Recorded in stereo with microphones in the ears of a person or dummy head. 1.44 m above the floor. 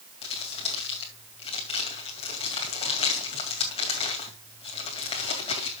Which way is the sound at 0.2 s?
30° left (ahead or behind).